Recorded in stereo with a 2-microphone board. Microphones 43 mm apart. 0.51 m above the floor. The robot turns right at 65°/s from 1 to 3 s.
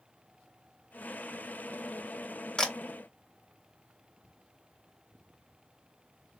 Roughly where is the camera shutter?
Centre.